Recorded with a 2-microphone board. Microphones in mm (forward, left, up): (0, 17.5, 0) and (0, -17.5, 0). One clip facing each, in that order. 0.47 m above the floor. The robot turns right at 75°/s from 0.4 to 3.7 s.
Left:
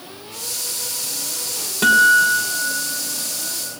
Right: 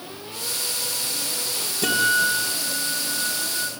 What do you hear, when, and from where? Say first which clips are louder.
1.8 s a guitar: left 8 dB; 125° left, 4 m; by 3.7 s 95° right, 4 m